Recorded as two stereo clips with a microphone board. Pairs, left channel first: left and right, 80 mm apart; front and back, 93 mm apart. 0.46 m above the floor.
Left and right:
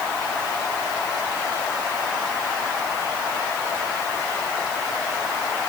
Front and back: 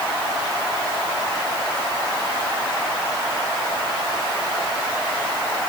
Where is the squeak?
I don't hear a squeak.